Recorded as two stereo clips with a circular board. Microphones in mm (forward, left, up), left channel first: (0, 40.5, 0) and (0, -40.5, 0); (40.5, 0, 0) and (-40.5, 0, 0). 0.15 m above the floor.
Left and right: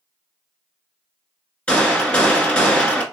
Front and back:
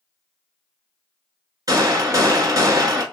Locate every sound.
1.7 s a gunshot: 160° left, 0.9 m